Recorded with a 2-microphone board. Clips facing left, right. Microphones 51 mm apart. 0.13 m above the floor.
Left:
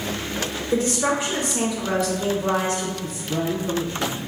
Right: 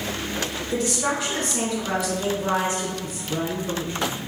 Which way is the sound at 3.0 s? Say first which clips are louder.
Left 2 dB; 5° right (ahead or behind).